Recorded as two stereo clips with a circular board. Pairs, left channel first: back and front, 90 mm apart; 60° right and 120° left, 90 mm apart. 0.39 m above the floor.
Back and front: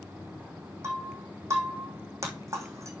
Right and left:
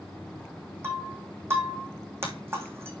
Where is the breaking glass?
55° left, 3 m.